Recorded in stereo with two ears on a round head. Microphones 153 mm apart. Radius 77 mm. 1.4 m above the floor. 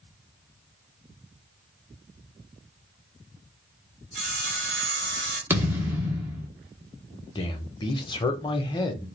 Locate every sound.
4.1 s sawing: 55° right (ahead or behind), 2 m
5.5 s a thud: 15° right (ahead or behind), 1.0 m
7.3 s a man speaking: 30° left (ahead or behind), 0.8 m